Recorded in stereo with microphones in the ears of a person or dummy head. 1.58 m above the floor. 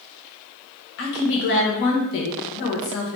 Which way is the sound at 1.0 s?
60° left (ahead or behind).